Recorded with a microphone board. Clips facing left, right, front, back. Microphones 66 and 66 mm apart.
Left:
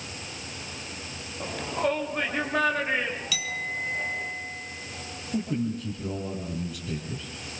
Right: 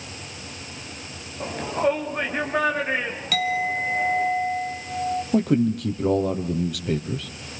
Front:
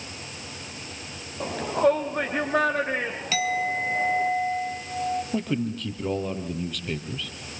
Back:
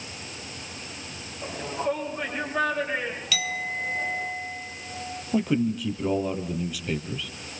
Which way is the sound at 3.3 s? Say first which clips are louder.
Right 9 dB, front 7 dB; 55° right.